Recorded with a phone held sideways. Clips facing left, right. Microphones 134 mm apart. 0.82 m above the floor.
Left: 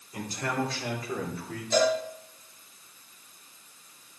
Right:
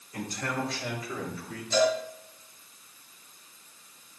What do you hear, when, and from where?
0.1 s a man speaking: 20° left (ahead or behind), 3.5 m; by 1.6 s 55° left (ahead or behind), 3 m
1.7 s a cowbell: 50° left (ahead or behind), 3.5 m